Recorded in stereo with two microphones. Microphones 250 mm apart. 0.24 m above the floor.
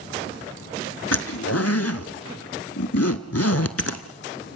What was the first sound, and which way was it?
A zipper, 70° left (ahead or behind).